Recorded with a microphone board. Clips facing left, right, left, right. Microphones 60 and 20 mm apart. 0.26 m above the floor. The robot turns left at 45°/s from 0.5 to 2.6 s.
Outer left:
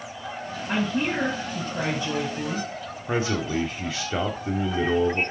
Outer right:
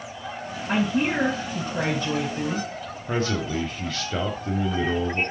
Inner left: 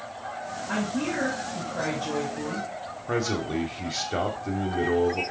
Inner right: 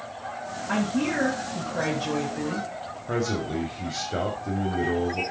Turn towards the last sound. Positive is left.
turn(degrees=15)  # may be behind; listen again after turning